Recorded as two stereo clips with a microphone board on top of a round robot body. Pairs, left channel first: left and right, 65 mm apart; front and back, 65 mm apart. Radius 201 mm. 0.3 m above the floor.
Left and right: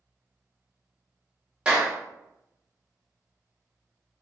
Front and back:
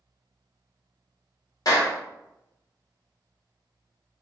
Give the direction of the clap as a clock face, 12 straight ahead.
12 o'clock.